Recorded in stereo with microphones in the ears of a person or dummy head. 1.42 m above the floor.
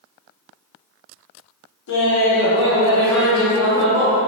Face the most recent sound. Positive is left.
turn(degrees=-40)  # may be behind; listen again after turning